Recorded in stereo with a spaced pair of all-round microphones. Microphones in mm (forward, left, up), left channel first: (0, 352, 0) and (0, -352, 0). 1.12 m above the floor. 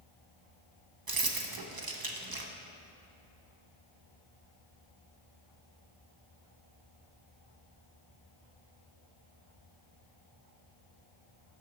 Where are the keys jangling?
35° right (ahead or behind), 0.7 m.